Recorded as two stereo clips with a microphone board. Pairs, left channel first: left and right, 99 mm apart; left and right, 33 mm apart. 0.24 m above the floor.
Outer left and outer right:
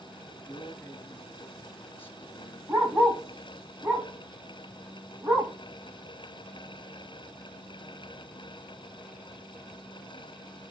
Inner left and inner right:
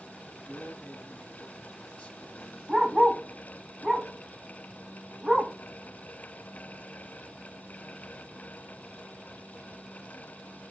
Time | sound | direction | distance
0.4 | a man speaking | 25° left (ahead or behind) | 1.2 m
2.7 | a dog barking | 25° right (ahead or behind) | 7.5 m